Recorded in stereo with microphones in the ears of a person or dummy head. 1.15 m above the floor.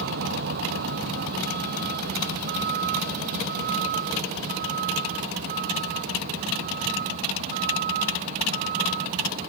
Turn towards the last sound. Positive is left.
turn(degrees=-45)  # may be behind; listen again after turning